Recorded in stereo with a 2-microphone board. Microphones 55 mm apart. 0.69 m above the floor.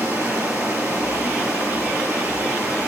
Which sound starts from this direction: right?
Running water, at 0.0 s.